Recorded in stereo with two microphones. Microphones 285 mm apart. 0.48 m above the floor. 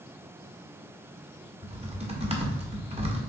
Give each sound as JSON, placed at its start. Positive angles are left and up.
{"t": 1.6, "sound": "typing on a keyboard", "side_deg": -20, "distance_m": 1.3}